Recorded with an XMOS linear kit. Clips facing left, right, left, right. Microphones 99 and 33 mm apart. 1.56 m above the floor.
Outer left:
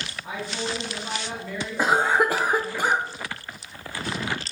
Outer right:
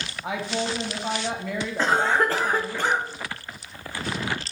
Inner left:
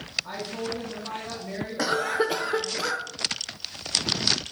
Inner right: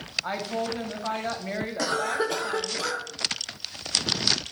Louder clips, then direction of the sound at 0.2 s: Outer right 4 dB, inner right 3 dB; 85° right.